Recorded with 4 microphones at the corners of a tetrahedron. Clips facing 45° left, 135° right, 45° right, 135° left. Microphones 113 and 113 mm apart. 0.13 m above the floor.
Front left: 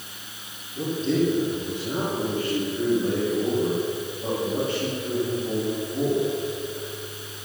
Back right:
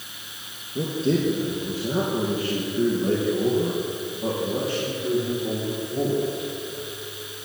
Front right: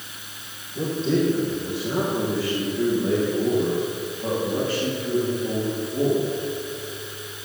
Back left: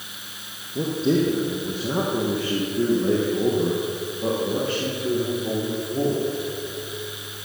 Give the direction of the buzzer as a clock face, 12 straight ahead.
I don't hear a buzzer.